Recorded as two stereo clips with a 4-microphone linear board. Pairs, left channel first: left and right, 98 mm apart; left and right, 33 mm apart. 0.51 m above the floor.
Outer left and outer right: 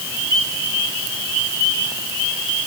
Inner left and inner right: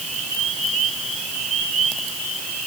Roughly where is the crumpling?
No crumpling in this recording.